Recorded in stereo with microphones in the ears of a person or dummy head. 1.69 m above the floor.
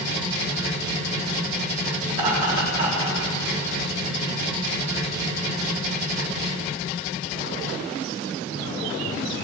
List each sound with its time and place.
2.1 s laughter: 45° right (ahead or behind), 4 m